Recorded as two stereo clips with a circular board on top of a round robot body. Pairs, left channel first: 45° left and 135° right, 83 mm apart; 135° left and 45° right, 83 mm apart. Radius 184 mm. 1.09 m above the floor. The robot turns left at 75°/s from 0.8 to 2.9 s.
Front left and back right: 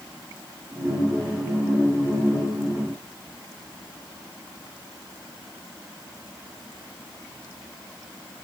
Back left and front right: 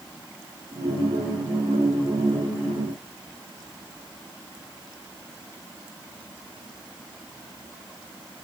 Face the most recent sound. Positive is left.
No sound to turn to.